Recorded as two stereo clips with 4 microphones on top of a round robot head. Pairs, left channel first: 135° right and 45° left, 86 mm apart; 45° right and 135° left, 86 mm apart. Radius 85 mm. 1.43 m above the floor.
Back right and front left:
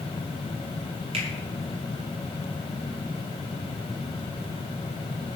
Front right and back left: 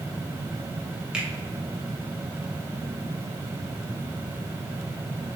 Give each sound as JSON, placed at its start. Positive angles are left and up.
{"t": 1.1, "sound": "a finger snap", "azimuth_deg": 55, "distance_m": 1.3}